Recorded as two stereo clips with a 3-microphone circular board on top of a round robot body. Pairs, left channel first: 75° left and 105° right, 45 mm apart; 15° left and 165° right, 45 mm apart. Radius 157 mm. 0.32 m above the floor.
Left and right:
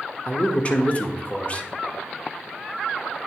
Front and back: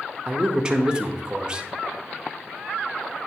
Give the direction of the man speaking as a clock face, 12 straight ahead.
8 o'clock.